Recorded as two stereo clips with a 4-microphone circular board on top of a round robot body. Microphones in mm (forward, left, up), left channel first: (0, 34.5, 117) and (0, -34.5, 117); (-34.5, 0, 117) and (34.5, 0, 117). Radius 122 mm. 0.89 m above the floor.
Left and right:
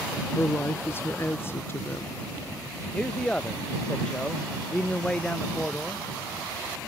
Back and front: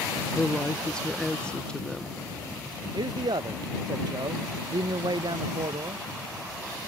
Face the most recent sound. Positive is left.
turn(degrees=10)